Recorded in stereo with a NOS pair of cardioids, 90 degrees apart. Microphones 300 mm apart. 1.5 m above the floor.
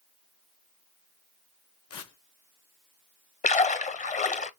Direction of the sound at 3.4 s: 25° left.